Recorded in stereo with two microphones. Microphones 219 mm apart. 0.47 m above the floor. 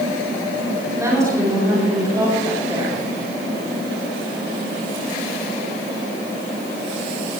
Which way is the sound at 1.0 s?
15° right (ahead or behind).